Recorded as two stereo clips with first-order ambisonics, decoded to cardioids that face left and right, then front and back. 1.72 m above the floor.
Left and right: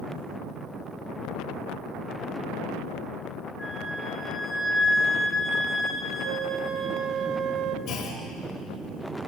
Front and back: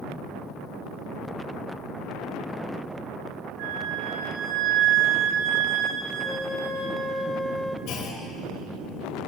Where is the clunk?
40° left, 5 m.